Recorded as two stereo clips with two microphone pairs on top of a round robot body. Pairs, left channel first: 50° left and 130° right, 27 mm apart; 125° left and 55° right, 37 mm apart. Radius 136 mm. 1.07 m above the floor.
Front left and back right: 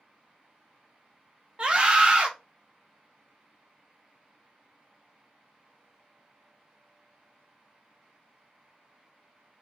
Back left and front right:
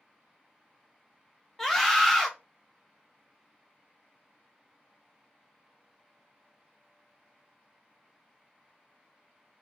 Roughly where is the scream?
Behind right.